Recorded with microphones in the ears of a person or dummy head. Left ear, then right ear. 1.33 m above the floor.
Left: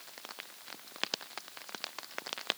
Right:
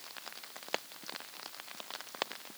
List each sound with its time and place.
Only background noise.